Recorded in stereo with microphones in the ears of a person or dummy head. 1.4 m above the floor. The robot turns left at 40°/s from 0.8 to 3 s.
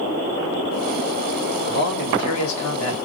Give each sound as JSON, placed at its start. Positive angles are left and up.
{"t": 1.6, "sound": "a man speaking", "azimuth_deg": 135, "distance_m": 1.5}